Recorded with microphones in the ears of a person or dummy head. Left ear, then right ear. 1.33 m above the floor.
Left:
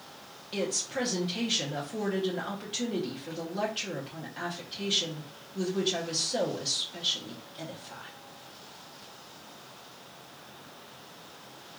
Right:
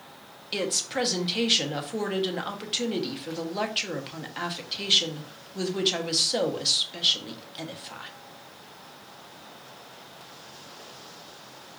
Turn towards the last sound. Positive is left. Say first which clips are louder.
# right 4 dB
turn(degrees=-35)  # may be behind; listen again after turning